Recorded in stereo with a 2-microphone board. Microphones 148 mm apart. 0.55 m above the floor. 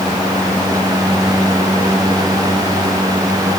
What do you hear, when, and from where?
Only background noise.